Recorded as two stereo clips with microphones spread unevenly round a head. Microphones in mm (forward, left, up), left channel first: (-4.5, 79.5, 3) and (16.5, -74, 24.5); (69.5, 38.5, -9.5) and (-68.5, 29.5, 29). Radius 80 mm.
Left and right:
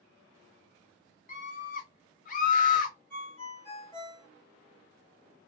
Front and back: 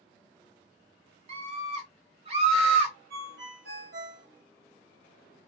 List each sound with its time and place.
1.3 s a scream: 130° left, 1.3 m
3.1 s a ringtone: straight behind, 1.3 m